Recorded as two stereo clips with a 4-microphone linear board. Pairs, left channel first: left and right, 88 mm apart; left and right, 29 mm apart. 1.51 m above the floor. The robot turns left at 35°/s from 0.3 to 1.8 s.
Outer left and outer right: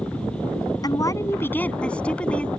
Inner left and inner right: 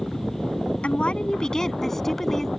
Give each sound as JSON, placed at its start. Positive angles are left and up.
{"t": 0.8, "sound": "a woman speaking", "azimuth_deg": 45}